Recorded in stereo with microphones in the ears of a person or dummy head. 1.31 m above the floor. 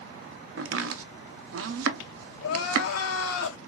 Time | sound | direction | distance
0.6 | chopping | 65° right (ahead or behind) | 0.6 m
2.4 | crying | 70° left (ahead or behind) | 0.8 m